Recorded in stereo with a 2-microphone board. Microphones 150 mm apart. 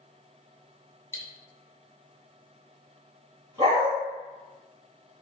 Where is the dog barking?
30° right (ahead or behind), 1.9 m.